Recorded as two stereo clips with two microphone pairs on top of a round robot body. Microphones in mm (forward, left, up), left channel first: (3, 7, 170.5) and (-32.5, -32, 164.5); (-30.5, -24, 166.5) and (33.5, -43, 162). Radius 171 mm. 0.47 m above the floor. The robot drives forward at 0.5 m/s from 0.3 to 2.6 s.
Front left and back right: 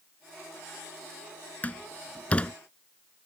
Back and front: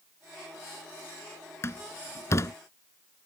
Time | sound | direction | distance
1.6 | a door slam | 110° left | ?